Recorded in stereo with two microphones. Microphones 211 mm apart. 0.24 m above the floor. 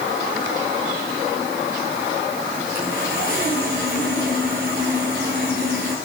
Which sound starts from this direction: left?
Sawing, at 2.8 s.